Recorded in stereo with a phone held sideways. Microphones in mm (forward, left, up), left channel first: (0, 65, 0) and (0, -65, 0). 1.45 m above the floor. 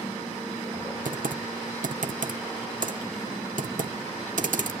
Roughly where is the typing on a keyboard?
Right.